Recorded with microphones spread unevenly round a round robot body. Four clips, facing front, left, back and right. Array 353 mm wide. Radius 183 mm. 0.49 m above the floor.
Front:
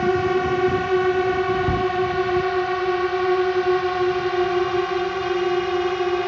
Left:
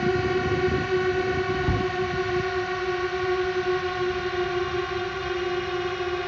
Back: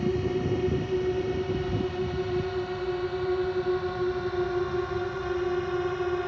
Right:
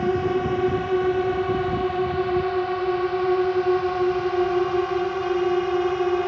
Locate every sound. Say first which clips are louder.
0.0 s a drone: right 2 dB, front 8 dB; 20° right; by 6.3 s 45° right
1.6 s a cupboard door: right 2 dB, front 8 dB; 35° left